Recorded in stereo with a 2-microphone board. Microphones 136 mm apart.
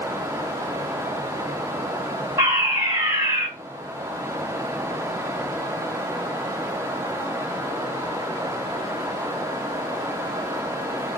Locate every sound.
2.4 s a fire alarm: 20° right (ahead or behind), 2 m